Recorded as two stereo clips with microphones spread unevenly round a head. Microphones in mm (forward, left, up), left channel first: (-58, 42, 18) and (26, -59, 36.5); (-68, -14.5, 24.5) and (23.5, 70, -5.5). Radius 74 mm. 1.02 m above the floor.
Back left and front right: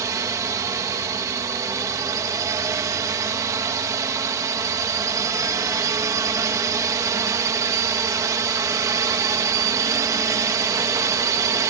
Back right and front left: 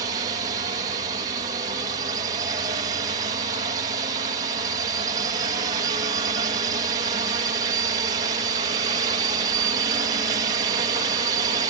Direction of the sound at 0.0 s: 15° left.